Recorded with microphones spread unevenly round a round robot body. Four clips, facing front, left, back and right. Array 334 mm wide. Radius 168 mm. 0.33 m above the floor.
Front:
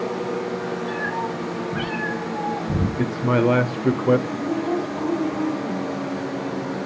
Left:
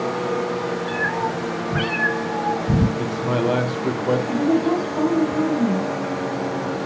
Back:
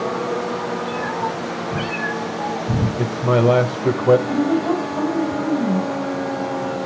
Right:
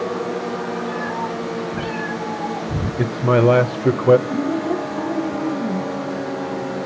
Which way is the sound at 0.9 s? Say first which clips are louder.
Left 1 dB, back 3 dB; 120° left.